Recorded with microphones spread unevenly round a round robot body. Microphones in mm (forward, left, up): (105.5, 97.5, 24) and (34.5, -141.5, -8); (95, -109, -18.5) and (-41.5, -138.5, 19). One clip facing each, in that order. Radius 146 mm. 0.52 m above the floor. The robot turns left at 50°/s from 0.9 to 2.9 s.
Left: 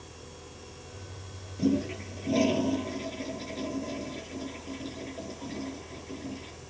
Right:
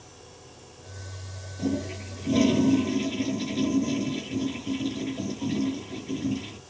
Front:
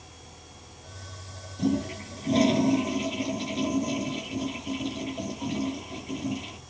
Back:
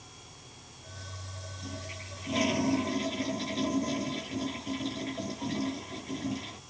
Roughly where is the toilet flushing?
Ahead.